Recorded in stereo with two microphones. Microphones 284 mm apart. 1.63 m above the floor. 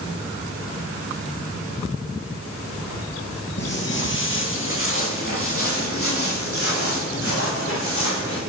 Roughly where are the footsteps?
Left.